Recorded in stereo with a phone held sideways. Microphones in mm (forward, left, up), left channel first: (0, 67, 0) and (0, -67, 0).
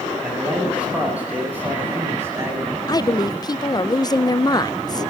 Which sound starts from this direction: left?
A woman speaking, at 2.9 s.